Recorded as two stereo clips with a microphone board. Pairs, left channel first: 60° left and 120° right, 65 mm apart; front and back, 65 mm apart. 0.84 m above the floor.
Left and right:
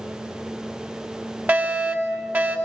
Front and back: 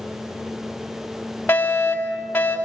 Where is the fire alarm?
65° right, 5.5 m.